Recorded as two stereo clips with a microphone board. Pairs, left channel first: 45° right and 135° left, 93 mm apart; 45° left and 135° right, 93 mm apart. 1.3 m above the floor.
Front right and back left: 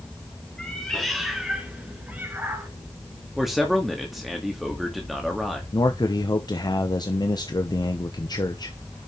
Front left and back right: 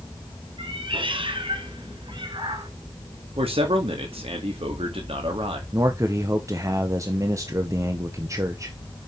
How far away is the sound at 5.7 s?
About 1.0 m.